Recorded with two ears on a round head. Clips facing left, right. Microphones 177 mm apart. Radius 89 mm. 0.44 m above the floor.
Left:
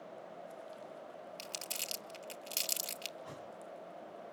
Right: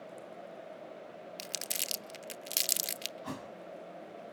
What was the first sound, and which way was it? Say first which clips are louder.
Crumpling: right 2 dB; 20° right (ahead or behind).